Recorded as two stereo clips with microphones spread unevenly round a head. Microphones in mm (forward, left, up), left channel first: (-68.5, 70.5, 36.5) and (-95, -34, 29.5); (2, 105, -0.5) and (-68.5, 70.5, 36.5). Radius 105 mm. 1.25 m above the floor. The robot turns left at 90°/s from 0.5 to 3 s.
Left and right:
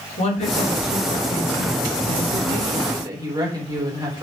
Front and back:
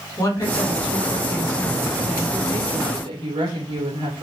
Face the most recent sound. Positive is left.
turn(degrees=-155)